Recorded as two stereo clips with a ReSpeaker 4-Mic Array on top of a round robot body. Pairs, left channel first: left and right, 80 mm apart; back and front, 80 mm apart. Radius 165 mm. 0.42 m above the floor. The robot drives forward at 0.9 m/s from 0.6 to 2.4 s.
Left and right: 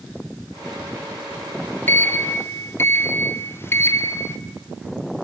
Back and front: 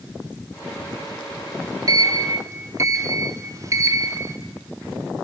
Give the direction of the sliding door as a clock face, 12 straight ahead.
11 o'clock.